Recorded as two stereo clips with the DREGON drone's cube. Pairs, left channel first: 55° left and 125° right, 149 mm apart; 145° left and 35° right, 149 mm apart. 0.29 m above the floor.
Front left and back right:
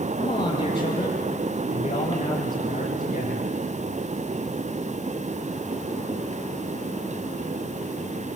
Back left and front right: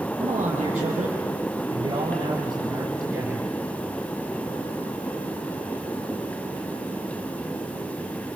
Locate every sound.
0.2 s a man speaking: 10° left, 5 m; by 3.5 s 45° left, 3.5 m